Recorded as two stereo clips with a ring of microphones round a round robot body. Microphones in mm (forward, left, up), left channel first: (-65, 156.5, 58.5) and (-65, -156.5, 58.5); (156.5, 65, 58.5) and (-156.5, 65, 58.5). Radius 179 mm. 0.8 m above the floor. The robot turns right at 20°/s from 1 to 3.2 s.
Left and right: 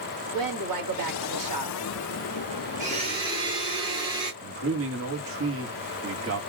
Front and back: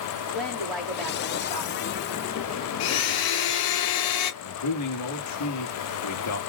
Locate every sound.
0.3 s a woman speaking: 90° right, 2 m; by 1.8 s 75° right, 2 m
2.8 s a blender: 20° right, 0.6 m; by 4.3 s 15° right, 0.6 m
4.4 s a man speaking: 40° right, 1.1 m